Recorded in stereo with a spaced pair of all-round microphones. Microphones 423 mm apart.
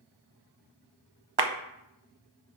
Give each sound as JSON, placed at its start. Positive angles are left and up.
{"t": 1.4, "sound": "a clap", "side_deg": -60, "distance_m": 0.7}